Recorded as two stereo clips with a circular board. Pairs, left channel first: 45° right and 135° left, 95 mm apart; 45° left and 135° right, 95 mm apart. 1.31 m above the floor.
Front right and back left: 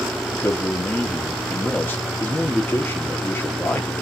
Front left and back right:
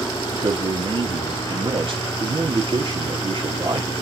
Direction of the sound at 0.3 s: 110° right.